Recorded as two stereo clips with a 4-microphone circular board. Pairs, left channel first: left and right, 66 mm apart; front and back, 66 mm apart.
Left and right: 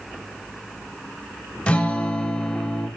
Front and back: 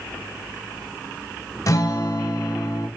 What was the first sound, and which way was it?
A guitar, 20° left.